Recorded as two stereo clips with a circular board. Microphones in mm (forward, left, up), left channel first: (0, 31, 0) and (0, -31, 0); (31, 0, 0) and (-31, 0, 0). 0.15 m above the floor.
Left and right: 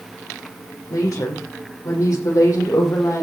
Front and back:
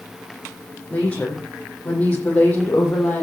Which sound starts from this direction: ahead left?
A woman speaking, at 0.9 s.